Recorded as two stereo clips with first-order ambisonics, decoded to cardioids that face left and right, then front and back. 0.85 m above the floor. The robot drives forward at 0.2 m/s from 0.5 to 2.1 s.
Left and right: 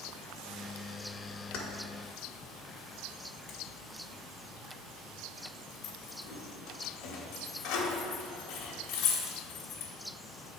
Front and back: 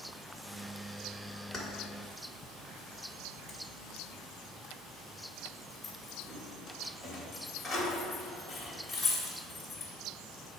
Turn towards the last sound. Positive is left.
turn(degrees=90)